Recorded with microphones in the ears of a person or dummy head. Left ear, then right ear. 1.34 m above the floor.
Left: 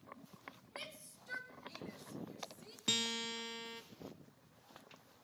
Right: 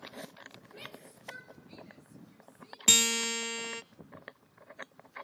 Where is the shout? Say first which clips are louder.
Right 1 dB; 90° left, 7 m; by 2.8 s 75° left (ahead or behind), 5.5 m.